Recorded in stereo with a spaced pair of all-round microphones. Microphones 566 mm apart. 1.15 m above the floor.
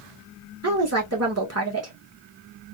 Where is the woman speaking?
25° right (ahead or behind), 1.5 m.